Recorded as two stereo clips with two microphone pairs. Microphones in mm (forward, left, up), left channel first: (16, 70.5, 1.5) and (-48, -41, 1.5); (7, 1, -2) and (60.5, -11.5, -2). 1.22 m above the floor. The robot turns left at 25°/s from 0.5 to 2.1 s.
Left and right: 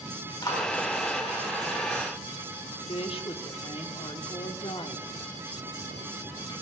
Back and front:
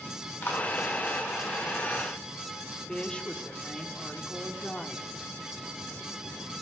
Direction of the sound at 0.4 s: 115° left.